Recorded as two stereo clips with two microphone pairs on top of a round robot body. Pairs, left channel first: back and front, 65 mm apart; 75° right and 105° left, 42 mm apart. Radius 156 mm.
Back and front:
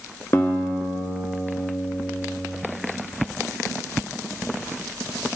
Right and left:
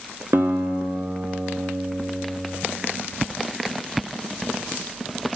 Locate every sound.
0.3 s a guitar: 140° left, 0.6 m